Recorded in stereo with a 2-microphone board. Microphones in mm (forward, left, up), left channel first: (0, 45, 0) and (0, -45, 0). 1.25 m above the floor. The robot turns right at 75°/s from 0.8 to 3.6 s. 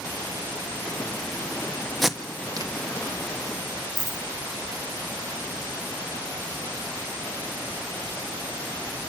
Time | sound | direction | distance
2.0 | tape being pulled | centre (ahead or behind) | 1.4 m
4.0 | a dropped coin | 35° right (ahead or behind) | 1.9 m